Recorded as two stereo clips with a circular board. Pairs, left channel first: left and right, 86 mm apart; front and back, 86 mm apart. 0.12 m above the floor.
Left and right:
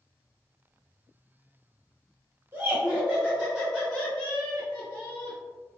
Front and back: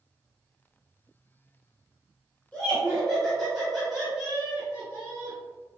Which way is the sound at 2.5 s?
60° right.